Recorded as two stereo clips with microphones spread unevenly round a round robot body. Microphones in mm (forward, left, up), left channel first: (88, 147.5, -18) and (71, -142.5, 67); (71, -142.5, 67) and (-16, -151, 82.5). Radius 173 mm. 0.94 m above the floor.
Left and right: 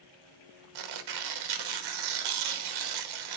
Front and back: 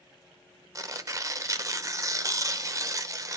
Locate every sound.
0.8 s tearing paper: 115° right, 1.1 m